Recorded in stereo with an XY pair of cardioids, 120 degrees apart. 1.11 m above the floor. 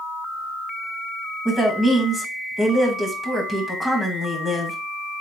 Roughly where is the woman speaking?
Ahead.